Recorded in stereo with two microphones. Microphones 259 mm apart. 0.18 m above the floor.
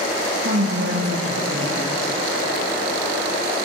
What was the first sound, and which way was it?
A woman speaking, 55° right (ahead or behind).